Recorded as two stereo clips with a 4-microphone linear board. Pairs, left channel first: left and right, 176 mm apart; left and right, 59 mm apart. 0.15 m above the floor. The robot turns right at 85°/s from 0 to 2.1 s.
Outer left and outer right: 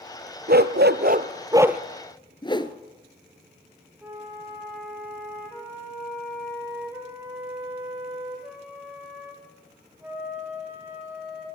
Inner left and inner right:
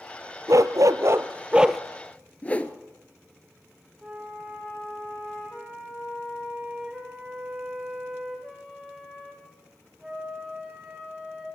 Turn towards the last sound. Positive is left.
turn(degrees=-10)  # may be behind; listen again after turning